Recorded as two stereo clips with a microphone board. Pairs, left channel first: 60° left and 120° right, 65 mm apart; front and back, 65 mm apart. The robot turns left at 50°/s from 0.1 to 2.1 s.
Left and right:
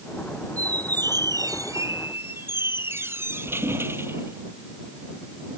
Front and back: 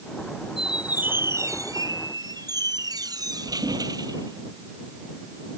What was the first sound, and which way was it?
A squeak, 95° right.